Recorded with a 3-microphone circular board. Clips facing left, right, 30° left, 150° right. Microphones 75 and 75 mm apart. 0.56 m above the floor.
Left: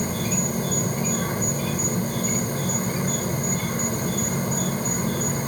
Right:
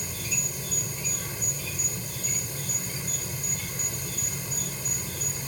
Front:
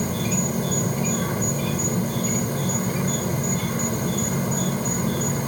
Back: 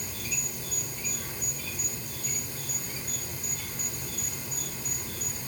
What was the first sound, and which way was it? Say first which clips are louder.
An insect: left 12 dB, front 15 dB; 55° left.